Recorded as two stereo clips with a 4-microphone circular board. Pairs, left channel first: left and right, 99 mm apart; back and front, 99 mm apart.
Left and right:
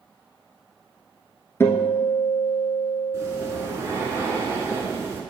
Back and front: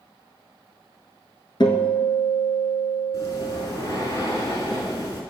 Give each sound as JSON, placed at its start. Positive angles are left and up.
{"t": 1.6, "sound": "a guitar", "azimuth_deg": 150, "distance_m": 0.9}
{"t": 3.1, "sound": "breathing", "azimuth_deg": -145, "distance_m": 1.4}